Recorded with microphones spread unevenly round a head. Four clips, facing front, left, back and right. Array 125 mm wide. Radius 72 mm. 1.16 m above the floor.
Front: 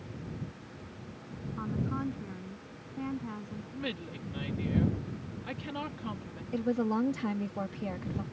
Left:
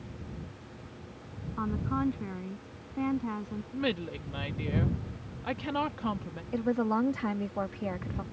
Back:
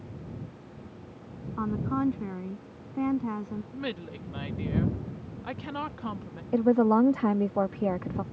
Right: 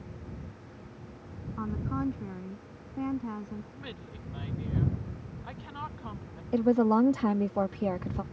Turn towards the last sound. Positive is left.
turn(degrees=-160)